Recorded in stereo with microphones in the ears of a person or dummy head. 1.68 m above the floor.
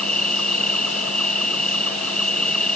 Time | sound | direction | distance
0.0 | an insect | centre (ahead or behind) | ?